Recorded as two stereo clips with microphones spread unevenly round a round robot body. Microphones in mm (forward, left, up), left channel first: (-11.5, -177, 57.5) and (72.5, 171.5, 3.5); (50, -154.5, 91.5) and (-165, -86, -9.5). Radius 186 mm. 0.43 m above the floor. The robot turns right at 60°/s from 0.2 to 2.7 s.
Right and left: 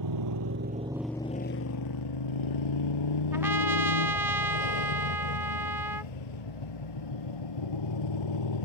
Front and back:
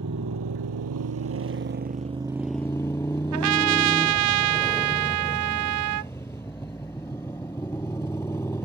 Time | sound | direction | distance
0.0 | a motorcycle | 115° left | ?
3.3 | a trumpet | 165° left | ?